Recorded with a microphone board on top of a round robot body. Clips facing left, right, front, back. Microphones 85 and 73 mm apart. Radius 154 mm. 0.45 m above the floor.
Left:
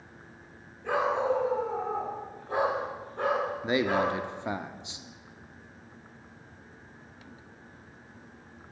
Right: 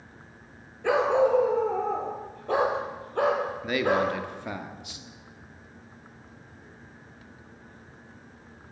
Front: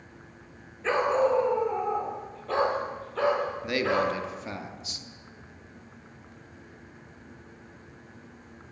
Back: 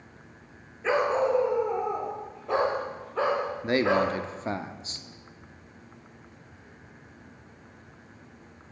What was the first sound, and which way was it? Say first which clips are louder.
A dog barking: right 5 dB, even; 100° right.